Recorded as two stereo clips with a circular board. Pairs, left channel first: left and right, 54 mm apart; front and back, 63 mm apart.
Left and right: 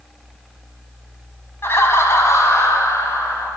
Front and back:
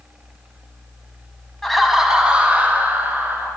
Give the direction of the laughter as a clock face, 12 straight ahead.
9 o'clock.